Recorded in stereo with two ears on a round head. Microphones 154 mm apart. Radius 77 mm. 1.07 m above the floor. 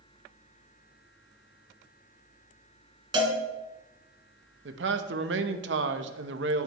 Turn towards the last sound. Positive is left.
turn(degrees=-75)  # may be behind; listen again after turning